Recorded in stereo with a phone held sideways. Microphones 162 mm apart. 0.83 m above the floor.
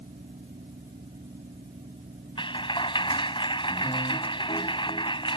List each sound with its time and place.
0.0 s a fan: 50° right (ahead or behind)
2.4 s a clap: 30° left (ahead or behind)